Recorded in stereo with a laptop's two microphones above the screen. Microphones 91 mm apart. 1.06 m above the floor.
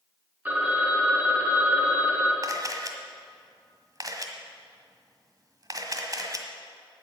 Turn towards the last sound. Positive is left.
turn(degrees=-40)  # may be behind; listen again after turning